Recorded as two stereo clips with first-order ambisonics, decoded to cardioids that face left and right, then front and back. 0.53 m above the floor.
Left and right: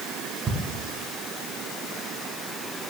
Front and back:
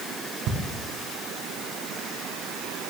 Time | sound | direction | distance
0.5 | ticking | 155° right | 1.4 m